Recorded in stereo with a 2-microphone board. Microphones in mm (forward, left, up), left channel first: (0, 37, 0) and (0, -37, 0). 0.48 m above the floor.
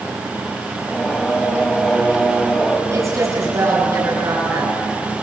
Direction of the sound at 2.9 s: 45° right (ahead or behind).